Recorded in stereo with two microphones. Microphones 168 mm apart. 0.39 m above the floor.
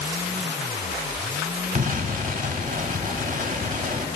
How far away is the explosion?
About 0.7 m.